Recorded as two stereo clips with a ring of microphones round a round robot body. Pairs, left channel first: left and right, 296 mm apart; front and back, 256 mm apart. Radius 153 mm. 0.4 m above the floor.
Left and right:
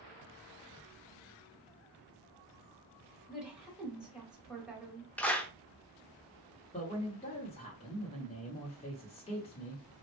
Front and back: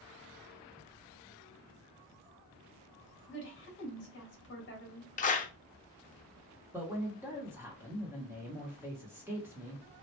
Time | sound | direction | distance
3.3 | a woman speaking | 5° right | 1.5 m
5.2 | a clap | 10° left | 0.6 m
6.7 | a man speaking | 115° left | 1.0 m